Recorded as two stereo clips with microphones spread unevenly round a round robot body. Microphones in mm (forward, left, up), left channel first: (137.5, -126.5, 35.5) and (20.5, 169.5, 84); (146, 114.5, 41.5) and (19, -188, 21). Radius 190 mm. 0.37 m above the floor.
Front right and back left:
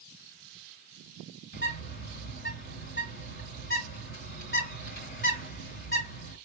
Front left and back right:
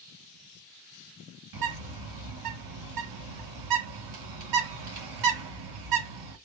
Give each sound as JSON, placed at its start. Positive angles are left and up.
{"t": 1.5, "sound": "a bird", "azimuth_deg": -130, "distance_m": 2.0}